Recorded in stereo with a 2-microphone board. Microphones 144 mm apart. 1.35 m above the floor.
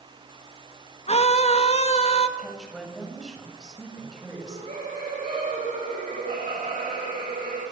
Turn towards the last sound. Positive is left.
turn(degrees=-60)  # may be behind; listen again after turning